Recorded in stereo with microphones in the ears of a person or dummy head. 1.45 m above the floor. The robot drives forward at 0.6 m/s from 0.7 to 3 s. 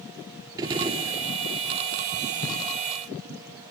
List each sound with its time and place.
0.6 s a gunshot: 20° right (ahead or behind), 2 m